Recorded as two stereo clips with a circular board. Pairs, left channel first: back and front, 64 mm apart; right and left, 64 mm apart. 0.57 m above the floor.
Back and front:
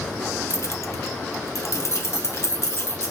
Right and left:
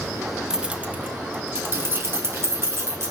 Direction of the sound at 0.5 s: 170° left.